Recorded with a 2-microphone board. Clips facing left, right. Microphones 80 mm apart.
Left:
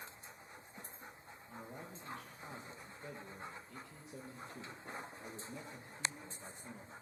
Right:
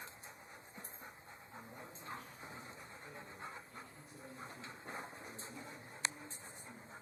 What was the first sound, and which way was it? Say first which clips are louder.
A man speaking: left 4 dB; 85° left.